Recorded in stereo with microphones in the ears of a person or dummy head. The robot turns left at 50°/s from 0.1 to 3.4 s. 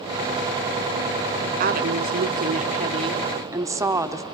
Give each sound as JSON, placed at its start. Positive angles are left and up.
{"t": 1.6, "sound": "a woman speaking", "azimuth_deg": -70, "distance_m": 0.5}